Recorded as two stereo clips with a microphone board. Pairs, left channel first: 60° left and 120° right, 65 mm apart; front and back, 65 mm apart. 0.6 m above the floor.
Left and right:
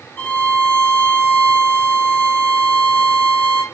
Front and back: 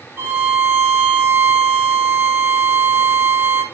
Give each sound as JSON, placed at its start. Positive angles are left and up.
{"t": 0.2, "sound": "a violin", "azimuth_deg": 125, "distance_m": 1.5}